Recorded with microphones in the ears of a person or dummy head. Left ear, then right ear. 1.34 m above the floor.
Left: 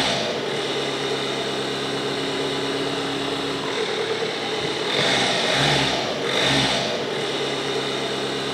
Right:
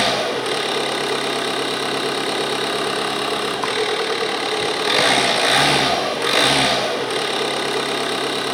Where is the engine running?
50° right (ahead or behind), 1.6 m.